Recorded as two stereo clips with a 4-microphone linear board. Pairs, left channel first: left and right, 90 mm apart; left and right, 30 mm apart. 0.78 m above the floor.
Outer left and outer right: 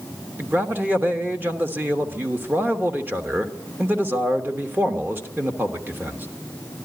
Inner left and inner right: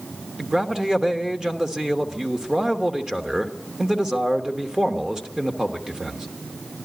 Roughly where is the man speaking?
Right.